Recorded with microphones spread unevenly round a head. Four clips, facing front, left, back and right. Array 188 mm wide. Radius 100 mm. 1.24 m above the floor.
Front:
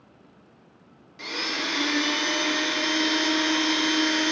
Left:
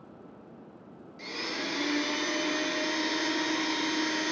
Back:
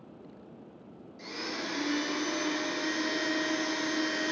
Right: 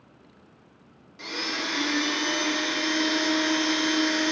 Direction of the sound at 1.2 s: 25° right.